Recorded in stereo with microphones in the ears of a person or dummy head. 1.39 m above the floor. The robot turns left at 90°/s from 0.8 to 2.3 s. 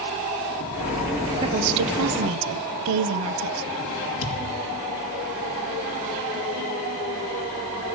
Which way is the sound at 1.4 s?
25° right.